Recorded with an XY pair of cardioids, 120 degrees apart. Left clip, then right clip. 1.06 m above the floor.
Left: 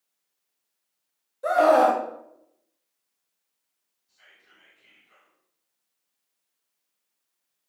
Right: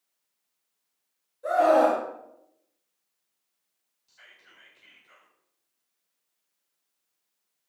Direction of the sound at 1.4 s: 55° left.